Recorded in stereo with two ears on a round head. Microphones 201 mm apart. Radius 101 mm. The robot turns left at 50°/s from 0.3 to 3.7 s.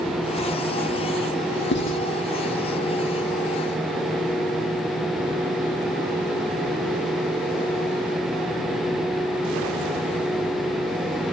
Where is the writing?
50° left (ahead or behind), 3.5 m; by 2.0 s 65° left (ahead or behind), 3.5 m.